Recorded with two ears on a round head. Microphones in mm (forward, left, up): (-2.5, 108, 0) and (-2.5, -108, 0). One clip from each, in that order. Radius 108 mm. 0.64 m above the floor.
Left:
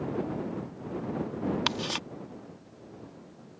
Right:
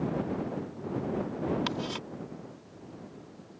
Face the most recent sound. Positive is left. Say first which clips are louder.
# left 4 dB
turn(degrees=40)  # may be behind; listen again after turning